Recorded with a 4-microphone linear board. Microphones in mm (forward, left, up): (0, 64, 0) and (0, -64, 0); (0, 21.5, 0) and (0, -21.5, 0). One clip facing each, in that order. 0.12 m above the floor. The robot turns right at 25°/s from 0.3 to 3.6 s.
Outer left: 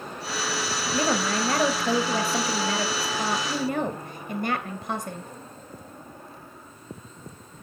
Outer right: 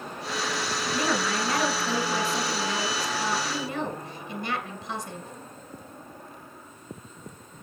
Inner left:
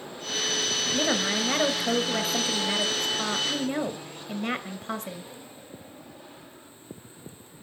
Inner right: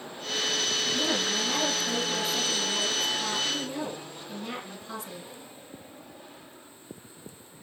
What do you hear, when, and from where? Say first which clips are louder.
0.9 s a woman speaking: outer left 3 dB, inner left 5 dB; 40° left, 2 m; by 5.3 s 105° left, 2 m